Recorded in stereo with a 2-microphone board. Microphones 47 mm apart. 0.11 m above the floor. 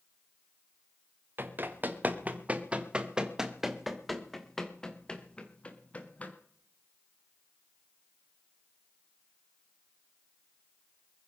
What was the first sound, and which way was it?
Running footsteps, 45° right (ahead or behind).